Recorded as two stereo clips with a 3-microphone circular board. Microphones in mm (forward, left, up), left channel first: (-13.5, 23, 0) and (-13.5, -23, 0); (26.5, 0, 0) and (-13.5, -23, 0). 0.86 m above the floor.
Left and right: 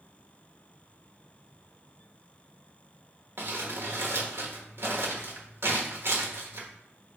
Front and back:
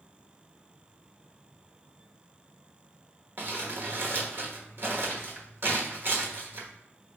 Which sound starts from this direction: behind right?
Crumpling, at 3.4 s.